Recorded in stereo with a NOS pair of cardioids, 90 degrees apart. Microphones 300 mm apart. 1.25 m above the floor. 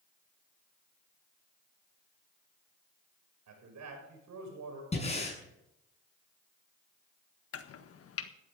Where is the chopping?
50° left, 1.5 m.